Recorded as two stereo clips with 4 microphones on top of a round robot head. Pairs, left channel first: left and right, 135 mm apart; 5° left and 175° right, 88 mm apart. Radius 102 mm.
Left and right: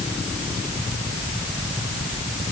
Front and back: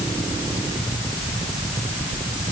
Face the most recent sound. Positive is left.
No sound to turn to.